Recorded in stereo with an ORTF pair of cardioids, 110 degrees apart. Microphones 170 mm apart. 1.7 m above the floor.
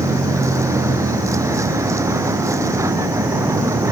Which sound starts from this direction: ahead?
A vehicle, at 0.0 s.